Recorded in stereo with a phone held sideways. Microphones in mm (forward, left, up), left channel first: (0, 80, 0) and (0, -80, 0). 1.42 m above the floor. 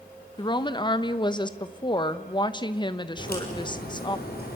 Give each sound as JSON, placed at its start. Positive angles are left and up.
{"t": 0.4, "sound": "a woman speaking", "side_deg": 30, "distance_m": 1.2}
{"t": 3.2, "sound": "a crack", "side_deg": 75, "distance_m": 6.0}